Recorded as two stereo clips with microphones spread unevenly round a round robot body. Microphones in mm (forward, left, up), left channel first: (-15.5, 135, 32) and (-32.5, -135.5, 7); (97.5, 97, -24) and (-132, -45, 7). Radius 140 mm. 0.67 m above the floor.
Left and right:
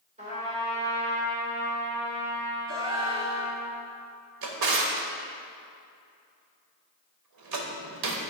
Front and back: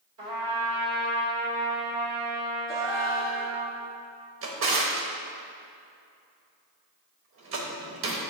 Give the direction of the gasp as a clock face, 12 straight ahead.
2 o'clock.